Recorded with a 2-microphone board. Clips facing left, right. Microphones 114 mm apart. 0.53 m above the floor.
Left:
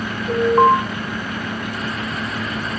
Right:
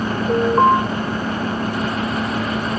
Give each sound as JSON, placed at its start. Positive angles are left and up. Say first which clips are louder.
{"t": 0.3, "sound": "an alarm", "louder": "left 1 dB", "side_deg": 0, "distance_m": 5.0}